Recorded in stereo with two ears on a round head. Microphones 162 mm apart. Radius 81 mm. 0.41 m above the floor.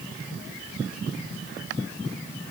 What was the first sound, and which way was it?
Only background noise.